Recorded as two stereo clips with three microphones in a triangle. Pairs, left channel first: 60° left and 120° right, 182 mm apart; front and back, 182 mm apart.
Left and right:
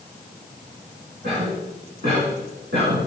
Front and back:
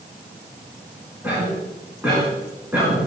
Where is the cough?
100° right, 3 m.